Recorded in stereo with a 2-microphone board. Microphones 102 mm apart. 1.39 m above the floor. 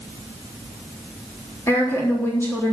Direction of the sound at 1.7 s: 30° left (ahead or behind).